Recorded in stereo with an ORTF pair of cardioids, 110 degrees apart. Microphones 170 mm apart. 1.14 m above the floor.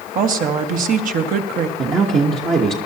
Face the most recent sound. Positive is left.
turn(degrees=-35)